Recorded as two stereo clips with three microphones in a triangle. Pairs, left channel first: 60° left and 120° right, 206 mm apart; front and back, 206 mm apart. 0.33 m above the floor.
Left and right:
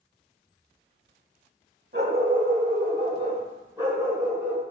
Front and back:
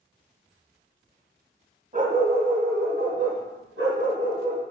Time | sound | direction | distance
1.9 | a dog barking | 140° right | 0.7 m